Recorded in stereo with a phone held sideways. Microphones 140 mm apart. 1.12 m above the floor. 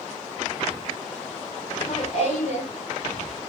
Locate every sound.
1.7 s laughter: 50° left (ahead or behind), 4 m; by 2.7 s 65° left (ahead or behind), 4 m